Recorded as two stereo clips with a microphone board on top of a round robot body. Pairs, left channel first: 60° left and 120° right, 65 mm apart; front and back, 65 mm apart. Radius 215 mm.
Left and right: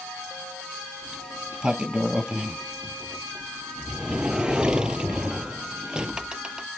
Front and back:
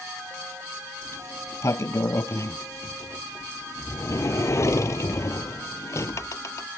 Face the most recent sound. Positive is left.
turn(degrees=-45)